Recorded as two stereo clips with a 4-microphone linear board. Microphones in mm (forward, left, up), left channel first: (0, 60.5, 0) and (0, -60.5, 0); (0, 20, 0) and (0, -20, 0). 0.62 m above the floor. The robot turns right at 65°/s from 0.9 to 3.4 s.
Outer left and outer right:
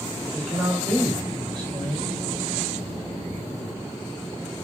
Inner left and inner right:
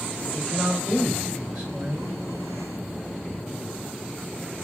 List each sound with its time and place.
0.3 s a man speaking: 170° left, 1.7 m; by 2.2 s 105° right, 1.7 m